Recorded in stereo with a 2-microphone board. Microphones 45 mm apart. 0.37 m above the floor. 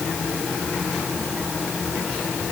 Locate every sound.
Only background noise.